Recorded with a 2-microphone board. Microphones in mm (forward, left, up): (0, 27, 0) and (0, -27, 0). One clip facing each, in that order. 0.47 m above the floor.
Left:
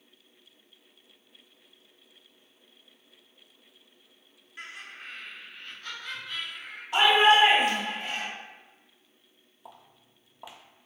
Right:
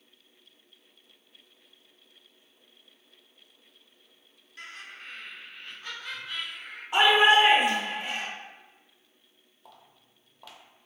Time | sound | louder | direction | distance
4.6 | laughter | left 1 dB | 25° left (ahead or behind) | 1.1 m
6.9 | a shout | even | 30° right (ahead or behind) | 0.9 m
9.7 | footsteps | left 4 dB | 20° left (ahead or behind) | 0.6 m